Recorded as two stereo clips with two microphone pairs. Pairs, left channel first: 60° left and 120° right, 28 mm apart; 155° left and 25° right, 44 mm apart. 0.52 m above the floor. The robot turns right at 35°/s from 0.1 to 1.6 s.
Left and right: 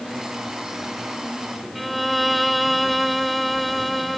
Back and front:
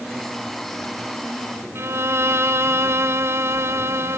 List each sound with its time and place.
1.8 s a violin: 30° right, 1.1 m